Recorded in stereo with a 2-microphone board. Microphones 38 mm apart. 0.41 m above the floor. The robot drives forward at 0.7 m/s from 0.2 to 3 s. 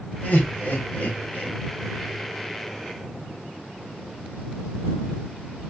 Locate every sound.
0.2 s laughter: 50° left (ahead or behind), 2.5 m; by 1.6 s 40° left (ahead or behind), 3 m